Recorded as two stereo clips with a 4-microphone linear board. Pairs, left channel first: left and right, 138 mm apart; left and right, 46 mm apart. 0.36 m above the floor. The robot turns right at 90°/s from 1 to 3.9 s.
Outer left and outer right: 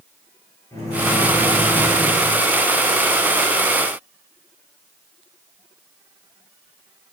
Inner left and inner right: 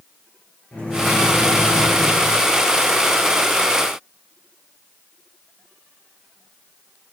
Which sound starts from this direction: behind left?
A microwave, at 0.7 s.